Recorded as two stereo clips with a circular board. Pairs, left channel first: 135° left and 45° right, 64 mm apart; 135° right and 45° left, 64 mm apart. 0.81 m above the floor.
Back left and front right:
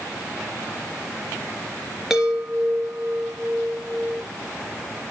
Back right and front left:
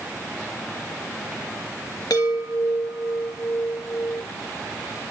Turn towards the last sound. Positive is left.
turn(degrees=-130)